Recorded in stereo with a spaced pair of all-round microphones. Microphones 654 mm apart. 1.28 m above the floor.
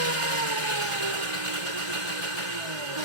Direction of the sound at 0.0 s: 50° right (ahead or behind).